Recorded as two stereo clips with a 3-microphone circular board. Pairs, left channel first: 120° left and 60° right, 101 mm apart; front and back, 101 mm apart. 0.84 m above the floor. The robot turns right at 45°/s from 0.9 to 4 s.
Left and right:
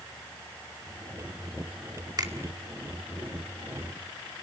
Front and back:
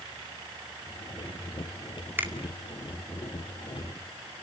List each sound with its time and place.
2.2 s a finger snap: 110° right, 1.9 m; by 2.3 s 105° right, 1.9 m